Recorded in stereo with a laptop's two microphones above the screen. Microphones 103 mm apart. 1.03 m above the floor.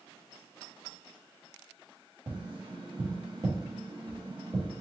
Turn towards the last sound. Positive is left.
turn(degrees=-50)  # may be behind; listen again after turning